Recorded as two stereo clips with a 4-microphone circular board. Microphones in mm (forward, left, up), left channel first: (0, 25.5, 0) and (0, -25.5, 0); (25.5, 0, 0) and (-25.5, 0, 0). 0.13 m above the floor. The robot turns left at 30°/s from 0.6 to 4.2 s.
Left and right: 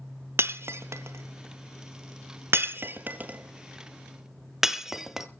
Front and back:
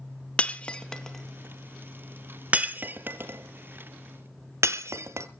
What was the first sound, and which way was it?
Breaking glass, 65° right.